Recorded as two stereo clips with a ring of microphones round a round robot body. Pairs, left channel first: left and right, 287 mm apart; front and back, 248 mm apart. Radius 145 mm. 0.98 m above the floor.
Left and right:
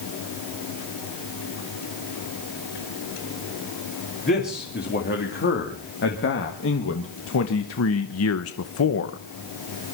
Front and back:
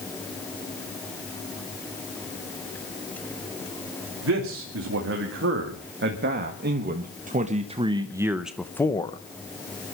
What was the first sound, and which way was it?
A man speaking, 150° left.